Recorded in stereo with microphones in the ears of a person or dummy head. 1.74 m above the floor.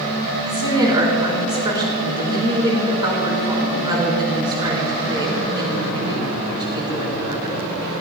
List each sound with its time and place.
0.5 s a woman speaking: 25° right (ahead or behind), 4 m